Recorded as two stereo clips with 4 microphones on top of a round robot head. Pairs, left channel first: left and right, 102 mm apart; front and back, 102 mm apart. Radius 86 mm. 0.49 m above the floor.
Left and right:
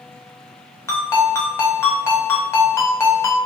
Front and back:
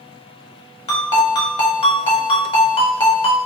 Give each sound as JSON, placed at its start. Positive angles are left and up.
{"t": 0.9, "sound": "a ringtone", "azimuth_deg": 25, "distance_m": 1.1}